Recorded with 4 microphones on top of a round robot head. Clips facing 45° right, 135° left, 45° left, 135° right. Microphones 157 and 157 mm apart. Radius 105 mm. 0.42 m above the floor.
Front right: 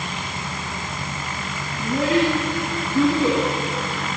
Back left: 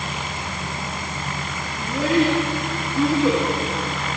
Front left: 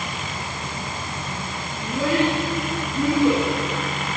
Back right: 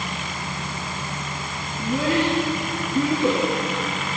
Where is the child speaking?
95° right, 8 m.